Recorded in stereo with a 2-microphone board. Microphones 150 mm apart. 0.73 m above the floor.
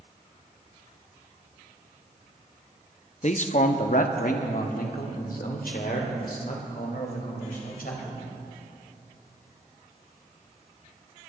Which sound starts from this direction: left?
A man speaking, at 3.2 s.